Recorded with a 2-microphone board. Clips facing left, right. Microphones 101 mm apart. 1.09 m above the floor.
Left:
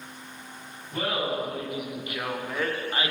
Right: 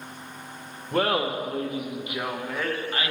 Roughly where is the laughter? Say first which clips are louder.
Right 4 dB; right.